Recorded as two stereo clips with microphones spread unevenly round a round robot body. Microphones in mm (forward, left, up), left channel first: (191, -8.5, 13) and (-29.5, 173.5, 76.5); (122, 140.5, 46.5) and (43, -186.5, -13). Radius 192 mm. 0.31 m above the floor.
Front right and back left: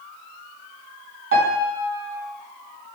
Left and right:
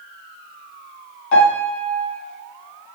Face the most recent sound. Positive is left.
turn(degrees=90)